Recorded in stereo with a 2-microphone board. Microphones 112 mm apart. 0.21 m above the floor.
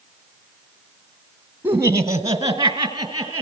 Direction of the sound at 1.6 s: 20° right (ahead or behind).